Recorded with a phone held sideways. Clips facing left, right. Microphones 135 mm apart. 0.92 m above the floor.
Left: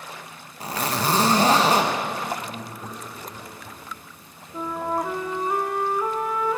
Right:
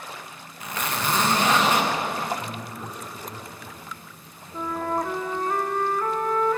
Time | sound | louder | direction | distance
0.6 | a zipper | left 3 dB | 35° left (ahead or behind) | 1.1 m
2.4 | a man speaking | even | 75° right (ahead or behind) | 5 m
4.5 | a flute | even | 10° left (ahead or behind) | 0.9 m